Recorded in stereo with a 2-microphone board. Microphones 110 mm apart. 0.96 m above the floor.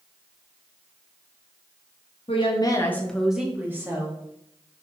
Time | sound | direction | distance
2.3 | a woman speaking | 60° left (ahead or behind) | 0.9 m